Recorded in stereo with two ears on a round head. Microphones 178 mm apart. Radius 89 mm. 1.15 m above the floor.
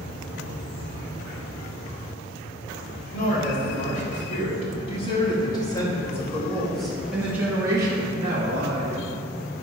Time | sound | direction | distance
3.1 | a woman speaking | 45° left (ahead or behind) | 3 m